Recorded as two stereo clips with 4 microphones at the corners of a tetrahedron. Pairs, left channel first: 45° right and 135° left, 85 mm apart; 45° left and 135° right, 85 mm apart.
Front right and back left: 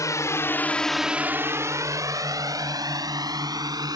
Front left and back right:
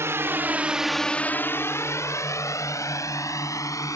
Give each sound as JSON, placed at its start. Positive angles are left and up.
{"t": 0.0, "sound": "a drone", "azimuth_deg": -85}